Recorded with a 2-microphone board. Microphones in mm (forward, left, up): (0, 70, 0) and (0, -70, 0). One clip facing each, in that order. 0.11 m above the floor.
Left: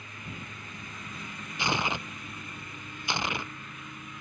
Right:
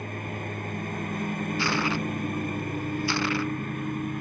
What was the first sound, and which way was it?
A lawn mower, 55° right (ahead or behind).